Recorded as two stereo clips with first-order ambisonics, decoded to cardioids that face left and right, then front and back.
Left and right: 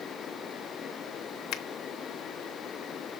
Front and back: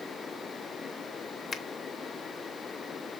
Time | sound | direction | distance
1.5 | a finger snap | 70° left | 0.8 m